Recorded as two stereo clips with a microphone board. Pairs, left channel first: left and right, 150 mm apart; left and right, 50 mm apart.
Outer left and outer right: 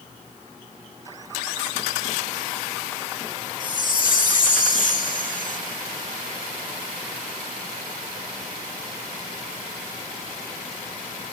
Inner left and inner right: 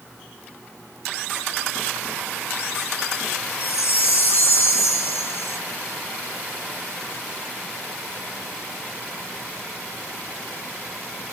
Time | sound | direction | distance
3.6 | a chime | 65° left (ahead or behind) | 2 m